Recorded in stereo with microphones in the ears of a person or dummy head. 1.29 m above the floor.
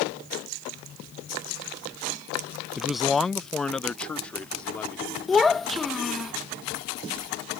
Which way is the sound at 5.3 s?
5° left (ahead or behind).